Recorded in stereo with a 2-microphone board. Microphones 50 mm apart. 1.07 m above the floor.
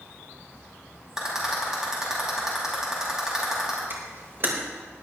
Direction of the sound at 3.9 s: 50° right (ahead or behind).